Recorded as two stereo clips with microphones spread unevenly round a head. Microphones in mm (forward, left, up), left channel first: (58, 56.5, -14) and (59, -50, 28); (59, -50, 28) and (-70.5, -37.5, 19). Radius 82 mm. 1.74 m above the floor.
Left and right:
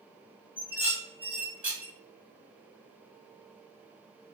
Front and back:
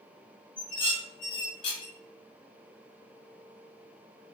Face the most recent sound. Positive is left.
turn(degrees=-40)